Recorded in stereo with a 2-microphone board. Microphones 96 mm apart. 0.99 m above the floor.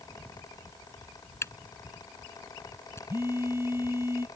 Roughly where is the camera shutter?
Left.